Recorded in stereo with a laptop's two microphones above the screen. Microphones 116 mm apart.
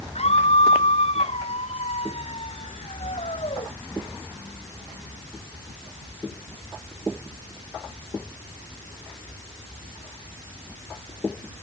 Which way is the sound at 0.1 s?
65° left (ahead or behind).